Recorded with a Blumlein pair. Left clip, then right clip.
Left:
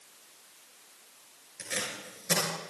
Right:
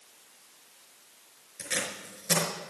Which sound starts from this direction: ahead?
Tape being pulled, at 1.6 s.